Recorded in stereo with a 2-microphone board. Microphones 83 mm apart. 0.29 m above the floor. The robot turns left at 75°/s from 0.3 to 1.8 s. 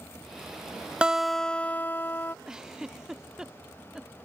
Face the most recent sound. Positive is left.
turn(degrees=-5)  # may be behind; listen again after turning